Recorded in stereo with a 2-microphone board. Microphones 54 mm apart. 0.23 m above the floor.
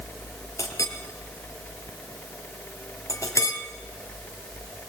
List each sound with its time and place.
0.6 s a clink: 65° left (ahead or behind), 2.5 m